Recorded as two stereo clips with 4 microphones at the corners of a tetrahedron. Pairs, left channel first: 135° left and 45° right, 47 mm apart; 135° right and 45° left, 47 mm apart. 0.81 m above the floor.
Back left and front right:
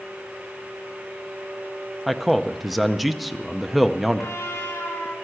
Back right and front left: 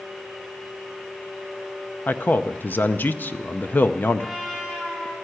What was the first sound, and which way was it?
A man speaking, 130° right.